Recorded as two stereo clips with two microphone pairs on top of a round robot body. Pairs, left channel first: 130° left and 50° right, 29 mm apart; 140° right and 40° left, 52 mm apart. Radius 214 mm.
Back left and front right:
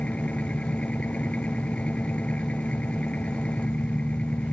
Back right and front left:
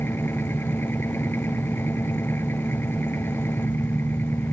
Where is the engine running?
175° left.